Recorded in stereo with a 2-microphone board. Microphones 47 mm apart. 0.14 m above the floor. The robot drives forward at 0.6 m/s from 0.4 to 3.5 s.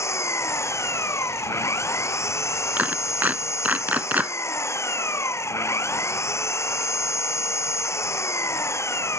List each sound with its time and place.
0.0 s an engine running: 80° left; by 9.2 s 75° left (ahead or behind)
2.8 s a clap: 35° right (ahead or behind); by 4.3 s 40° right (ahead or behind)